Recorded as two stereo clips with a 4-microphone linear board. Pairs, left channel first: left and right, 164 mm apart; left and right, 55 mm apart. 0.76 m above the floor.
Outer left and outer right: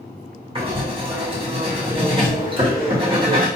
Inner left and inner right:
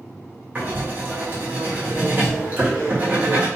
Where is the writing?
30° right (ahead or behind), 1.1 m.